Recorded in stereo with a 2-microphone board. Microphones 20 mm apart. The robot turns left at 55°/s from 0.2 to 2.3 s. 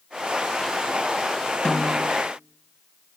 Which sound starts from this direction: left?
A snare drum, at 1.6 s.